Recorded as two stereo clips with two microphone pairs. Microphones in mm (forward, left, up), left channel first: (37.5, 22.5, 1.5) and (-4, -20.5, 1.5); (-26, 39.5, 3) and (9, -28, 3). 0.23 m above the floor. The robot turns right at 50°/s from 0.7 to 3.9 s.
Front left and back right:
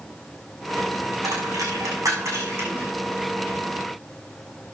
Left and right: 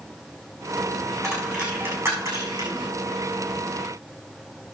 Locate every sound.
1.2 s a dropped coin: 155° right, 6 m; by 2.9 s 70° right, 6 m